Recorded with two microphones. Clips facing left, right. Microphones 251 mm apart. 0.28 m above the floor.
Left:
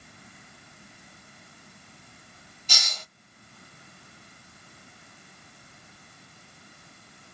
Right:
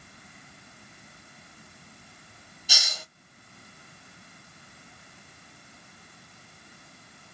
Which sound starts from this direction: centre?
A hiss, at 2.7 s.